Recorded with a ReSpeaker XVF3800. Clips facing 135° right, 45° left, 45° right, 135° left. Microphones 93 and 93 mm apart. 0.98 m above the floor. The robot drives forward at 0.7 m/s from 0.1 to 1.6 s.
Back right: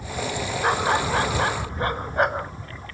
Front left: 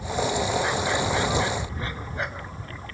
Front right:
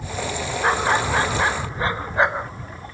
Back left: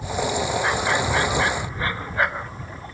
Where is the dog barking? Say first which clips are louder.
Back right 3 dB, front right 2 dB; 100° right; by 2.5 s 110° right.